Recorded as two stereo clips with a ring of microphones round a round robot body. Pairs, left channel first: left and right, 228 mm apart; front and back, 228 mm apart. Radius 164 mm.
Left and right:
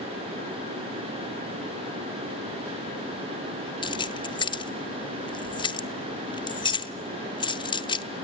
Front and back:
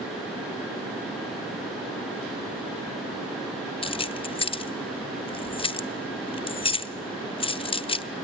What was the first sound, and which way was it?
Keys jangling, 40° left.